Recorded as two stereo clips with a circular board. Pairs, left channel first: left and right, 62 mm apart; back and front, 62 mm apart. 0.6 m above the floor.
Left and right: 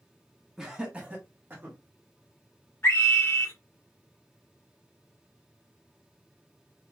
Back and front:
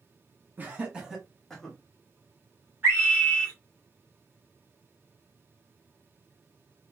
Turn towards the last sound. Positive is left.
turn(degrees=50)